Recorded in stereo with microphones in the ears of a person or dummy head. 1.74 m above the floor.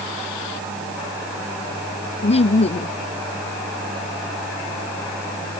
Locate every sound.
2.2 s laughter: 25° left (ahead or behind)